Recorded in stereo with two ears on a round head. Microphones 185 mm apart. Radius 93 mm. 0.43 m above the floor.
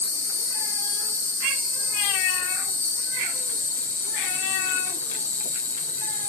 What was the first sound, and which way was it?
An insect, 10° left (ahead or behind).